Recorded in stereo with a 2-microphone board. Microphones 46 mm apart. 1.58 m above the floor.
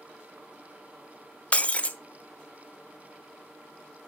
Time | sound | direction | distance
1.5 | breaking glass | 30° left (ahead or behind) | 0.7 m